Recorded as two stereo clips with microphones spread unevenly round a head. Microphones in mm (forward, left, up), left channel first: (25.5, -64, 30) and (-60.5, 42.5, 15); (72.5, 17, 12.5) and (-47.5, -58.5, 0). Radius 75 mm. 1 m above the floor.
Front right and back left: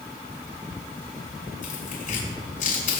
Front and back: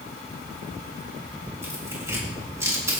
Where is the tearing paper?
75° right, 6 m.